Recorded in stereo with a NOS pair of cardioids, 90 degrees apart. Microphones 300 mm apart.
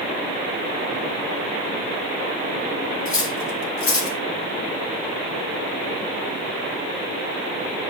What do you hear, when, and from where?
3.0 s cutlery clinking: 60° left, 3 m